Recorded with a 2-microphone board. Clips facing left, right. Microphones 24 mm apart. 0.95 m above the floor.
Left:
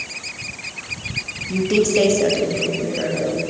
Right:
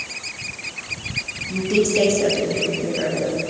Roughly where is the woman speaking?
Left.